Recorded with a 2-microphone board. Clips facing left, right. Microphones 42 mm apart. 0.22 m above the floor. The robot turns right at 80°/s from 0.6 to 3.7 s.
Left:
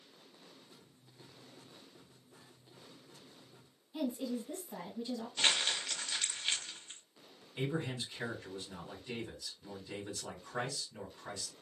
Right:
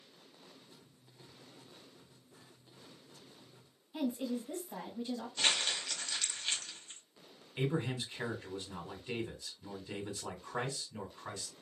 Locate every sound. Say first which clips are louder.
3.9 s a woman speaking: right 1 dB; 20° right (ahead or behind), 1.5 m
5.4 s crumpling: left 1 dB; 15° left (ahead or behind), 1.2 m
7.6 s a man speaking: right 2 dB; 35° right (ahead or behind), 1.6 m